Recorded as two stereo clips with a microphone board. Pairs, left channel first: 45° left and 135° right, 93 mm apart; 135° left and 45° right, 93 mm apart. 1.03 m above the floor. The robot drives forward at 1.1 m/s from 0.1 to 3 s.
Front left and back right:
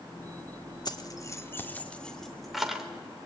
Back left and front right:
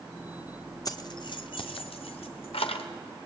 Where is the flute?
No flute in this recording.